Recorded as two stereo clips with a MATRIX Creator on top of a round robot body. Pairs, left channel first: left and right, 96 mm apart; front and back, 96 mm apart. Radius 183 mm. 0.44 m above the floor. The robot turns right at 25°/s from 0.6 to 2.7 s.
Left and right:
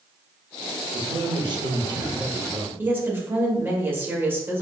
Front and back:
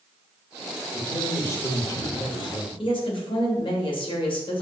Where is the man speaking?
70° right, 2.5 m; by 2.7 s 25° right, 2.5 m.